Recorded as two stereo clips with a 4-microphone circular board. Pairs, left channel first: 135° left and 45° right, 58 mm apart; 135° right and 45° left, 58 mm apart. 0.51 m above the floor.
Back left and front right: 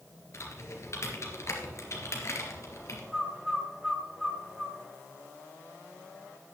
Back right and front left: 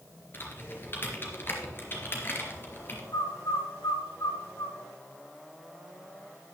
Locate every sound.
0.3 s typing on a keyboard: 175° left, 2.5 m
3.1 s a bird: 130° right, 1.3 m